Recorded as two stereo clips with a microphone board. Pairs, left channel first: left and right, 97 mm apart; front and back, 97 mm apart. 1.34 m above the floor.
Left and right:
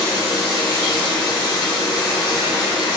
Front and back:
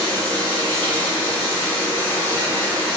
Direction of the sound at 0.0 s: 70° left.